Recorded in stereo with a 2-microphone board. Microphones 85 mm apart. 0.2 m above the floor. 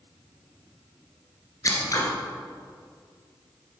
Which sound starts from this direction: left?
Scissors, at 1.6 s.